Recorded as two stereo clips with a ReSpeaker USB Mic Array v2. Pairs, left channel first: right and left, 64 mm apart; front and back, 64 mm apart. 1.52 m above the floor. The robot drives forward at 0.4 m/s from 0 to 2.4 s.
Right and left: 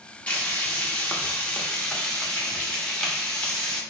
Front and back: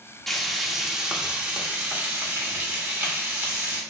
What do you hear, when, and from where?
0.3 s frying: 75° right, 0.9 m; by 3.8 s 155° right, 1.2 m